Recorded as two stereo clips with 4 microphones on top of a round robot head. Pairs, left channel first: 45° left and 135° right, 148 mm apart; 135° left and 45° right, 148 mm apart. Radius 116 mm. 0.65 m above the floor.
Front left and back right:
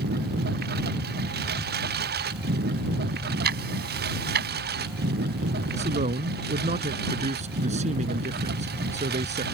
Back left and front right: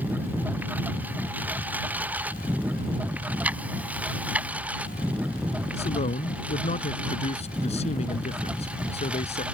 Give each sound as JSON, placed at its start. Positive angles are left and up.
{"t": 0.0, "sound": "a lawn mower", "azimuth_deg": -125}
{"t": 3.4, "sound": "ticking", "azimuth_deg": -125}
{"t": 5.7, "sound": "a man speaking", "azimuth_deg": 180}